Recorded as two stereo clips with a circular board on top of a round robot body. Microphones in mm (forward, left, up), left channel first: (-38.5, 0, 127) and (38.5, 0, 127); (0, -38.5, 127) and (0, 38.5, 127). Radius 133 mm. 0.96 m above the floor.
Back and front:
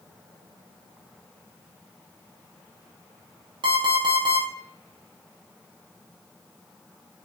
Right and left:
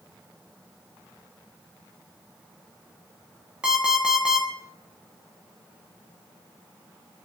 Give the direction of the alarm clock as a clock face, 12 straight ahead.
12 o'clock.